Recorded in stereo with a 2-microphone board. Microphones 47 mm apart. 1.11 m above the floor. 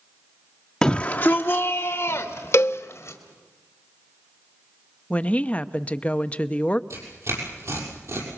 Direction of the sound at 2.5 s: 65° left (ahead or behind).